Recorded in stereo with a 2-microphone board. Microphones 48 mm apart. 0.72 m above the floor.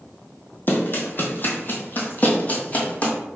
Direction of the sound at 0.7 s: 45° left (ahead or behind).